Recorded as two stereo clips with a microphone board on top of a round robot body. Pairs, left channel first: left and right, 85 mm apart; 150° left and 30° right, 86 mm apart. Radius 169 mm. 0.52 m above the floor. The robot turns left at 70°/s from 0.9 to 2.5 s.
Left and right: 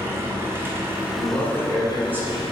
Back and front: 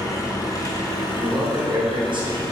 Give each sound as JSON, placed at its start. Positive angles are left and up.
{"t": 0.0, "sound": "an engine running", "azimuth_deg": -155, "distance_m": 1.1}
{"t": 1.1, "sound": "a man speaking", "azimuth_deg": 45, "distance_m": 3.0}